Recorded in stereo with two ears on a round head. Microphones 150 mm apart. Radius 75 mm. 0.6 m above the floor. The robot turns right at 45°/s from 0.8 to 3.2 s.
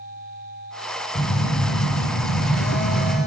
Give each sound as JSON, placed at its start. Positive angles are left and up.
{"t": 1.1, "sound": "a phone buzzing", "azimuth_deg": 45, "distance_m": 2.5}